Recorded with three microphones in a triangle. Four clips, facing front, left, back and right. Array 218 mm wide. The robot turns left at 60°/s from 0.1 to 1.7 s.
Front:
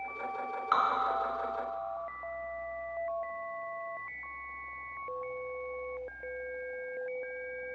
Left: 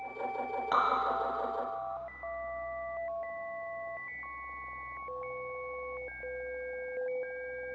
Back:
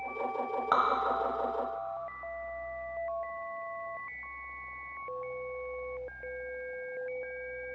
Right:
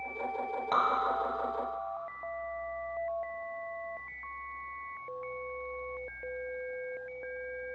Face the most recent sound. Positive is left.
turn(degrees=135)